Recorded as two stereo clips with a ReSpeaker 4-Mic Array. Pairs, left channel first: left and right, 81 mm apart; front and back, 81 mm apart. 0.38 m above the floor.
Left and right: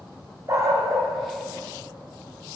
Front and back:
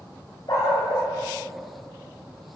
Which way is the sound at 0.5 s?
40° right.